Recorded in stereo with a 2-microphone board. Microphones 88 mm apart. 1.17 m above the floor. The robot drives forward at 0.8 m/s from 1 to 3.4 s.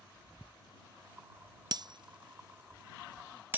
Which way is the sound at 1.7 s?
45° right (ahead or behind).